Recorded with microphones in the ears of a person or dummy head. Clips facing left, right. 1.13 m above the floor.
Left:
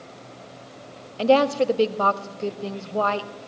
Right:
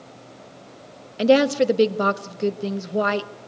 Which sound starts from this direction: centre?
A woman speaking, at 1.2 s.